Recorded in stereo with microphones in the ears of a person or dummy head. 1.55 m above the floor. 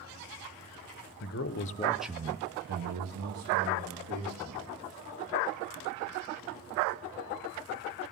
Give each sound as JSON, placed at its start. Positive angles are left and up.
{"t": 1.2, "sound": "a man speaking", "side_deg": 60, "distance_m": 1.0}